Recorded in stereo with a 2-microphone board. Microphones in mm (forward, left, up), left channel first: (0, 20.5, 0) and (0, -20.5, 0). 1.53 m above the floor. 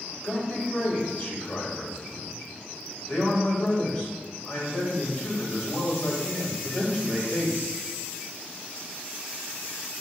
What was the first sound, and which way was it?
A man speaking, 50° left (ahead or behind).